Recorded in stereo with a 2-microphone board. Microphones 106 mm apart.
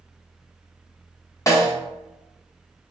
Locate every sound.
1.5 s a snare drum: 30° left (ahead or behind), 0.5 m